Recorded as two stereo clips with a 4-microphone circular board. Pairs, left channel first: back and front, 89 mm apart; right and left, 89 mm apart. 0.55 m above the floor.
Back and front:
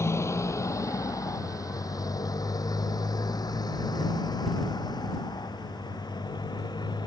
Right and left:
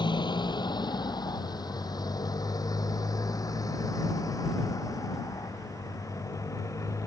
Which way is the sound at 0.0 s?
120° right.